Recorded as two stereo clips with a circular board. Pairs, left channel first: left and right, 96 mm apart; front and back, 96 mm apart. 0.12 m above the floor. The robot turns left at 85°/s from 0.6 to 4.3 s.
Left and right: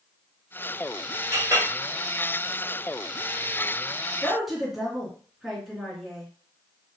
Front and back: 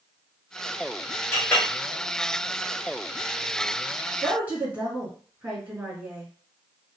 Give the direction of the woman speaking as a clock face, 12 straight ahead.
6 o'clock.